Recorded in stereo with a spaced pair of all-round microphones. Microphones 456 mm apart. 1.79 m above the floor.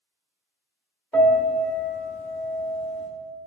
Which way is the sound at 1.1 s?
5° left (ahead or behind).